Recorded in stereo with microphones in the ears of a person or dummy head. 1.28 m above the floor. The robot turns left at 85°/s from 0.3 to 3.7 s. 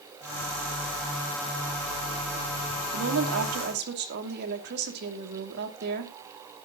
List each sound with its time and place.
2.9 s a woman speaking: 60° right, 2.5 m; by 6.1 s 125° right, 2.5 m